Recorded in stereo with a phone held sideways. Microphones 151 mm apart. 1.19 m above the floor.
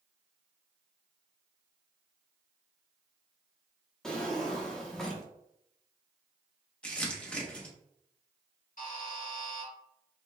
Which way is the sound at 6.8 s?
5° left (ahead or behind).